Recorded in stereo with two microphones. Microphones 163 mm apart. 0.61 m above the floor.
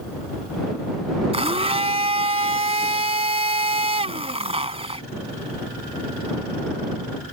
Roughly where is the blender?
Right.